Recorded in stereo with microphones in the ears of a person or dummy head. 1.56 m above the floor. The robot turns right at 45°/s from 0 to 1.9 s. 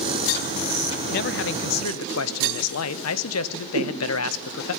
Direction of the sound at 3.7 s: 55° right (ahead or behind).